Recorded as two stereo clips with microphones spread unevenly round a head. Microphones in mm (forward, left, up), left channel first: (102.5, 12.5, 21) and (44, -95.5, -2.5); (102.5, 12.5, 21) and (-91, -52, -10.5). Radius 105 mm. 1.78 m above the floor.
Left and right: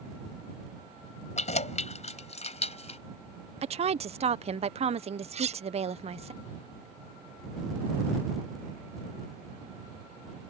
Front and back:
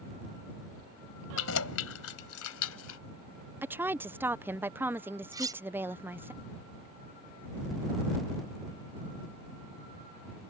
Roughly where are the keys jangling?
Ahead left.